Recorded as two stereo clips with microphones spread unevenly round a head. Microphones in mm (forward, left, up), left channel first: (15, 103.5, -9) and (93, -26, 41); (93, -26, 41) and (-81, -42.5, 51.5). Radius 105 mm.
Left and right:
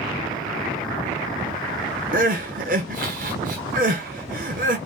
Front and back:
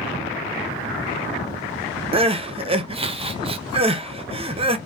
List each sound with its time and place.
2.1 s crying: 115° right, 0.5 m